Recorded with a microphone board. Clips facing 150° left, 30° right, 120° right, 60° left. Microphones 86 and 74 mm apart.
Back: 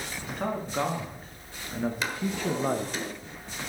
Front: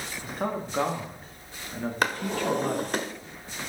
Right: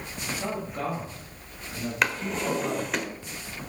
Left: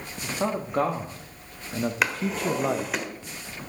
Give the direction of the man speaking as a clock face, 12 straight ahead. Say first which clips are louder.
Front 1 dB, left 4 dB; 10 o'clock.